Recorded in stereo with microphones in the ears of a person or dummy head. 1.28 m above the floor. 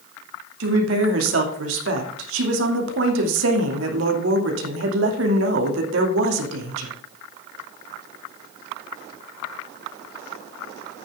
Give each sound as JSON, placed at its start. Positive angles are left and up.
{"t": 0.6, "sound": "a woman speaking", "side_deg": -75, "distance_m": 2.5}